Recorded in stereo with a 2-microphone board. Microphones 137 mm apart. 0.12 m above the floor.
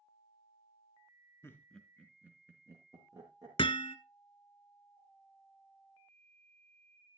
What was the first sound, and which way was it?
Laughter, 15° left (ahead or behind).